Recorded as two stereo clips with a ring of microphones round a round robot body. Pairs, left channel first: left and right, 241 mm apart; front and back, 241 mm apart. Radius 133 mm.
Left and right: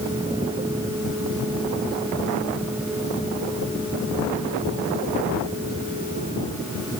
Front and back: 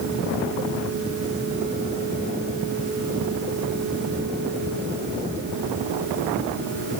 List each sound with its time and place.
Only background noise.